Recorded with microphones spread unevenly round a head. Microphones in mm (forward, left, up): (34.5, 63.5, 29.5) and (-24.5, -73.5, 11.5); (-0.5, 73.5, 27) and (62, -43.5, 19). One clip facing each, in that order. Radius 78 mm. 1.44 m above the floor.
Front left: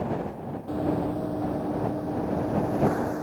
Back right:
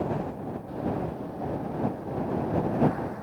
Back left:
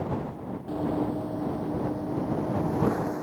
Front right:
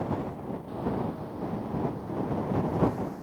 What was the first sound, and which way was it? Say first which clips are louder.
Running footsteps: front left 5 dB, back left 5 dB; 85° left.